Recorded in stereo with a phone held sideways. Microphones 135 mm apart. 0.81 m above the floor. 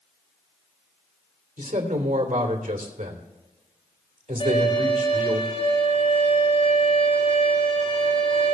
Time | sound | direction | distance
1.6 | a man speaking | 75° right (ahead or behind) | 3 m
4.4 | a violin | 40° left (ahead or behind) | 6.5 m